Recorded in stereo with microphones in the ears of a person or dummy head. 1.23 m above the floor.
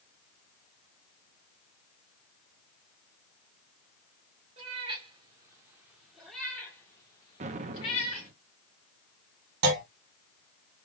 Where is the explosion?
35° right (ahead or behind), 0.5 m.